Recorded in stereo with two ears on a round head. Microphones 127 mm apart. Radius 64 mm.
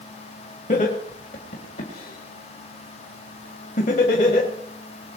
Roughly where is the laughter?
Left.